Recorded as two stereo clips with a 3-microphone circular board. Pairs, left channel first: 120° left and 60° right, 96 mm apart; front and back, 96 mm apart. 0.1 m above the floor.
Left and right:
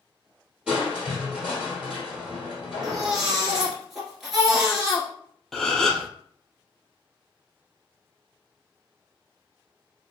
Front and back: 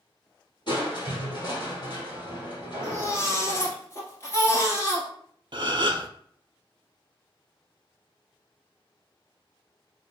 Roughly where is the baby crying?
Ahead left.